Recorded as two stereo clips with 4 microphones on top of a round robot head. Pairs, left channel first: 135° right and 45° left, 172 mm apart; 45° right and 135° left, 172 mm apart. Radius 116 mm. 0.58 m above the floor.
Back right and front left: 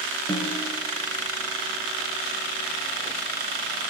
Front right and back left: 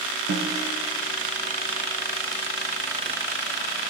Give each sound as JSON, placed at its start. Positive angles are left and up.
{"t": 0.3, "sound": "a snare drum", "azimuth_deg": 150, "distance_m": 4.0}